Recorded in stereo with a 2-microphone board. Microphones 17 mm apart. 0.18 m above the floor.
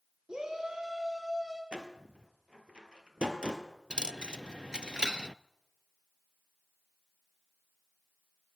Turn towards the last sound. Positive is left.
turn(degrees=-65)  # may be behind; listen again after turning